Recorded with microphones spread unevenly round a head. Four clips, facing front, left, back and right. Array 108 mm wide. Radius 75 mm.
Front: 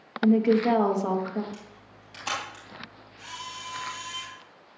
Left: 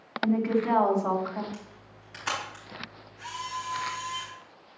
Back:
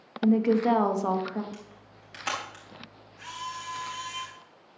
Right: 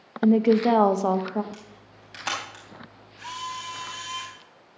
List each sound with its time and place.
0.2 s a woman speaking: 105° right, 1.1 m
1.5 s a camera shutter: 160° right, 3.5 m